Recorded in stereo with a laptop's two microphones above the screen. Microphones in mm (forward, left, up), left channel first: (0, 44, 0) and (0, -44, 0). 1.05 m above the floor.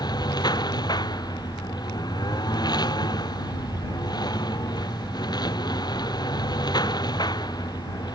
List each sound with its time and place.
0.0 s a lawn mower: 50° left (ahead or behind)